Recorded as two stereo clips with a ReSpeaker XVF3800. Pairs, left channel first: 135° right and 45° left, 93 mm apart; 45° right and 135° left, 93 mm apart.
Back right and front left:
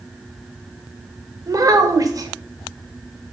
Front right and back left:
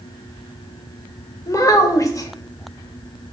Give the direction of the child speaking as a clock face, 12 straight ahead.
12 o'clock.